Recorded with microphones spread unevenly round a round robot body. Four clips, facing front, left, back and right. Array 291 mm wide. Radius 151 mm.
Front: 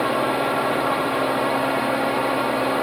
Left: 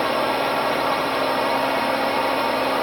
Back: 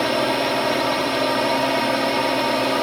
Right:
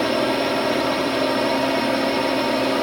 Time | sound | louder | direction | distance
0.0 | a drone | right 1 dB, even | 95° right | ?